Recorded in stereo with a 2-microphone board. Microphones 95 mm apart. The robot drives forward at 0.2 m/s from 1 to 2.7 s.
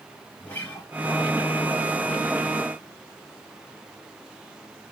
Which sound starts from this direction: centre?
A guitar, at 0.4 s.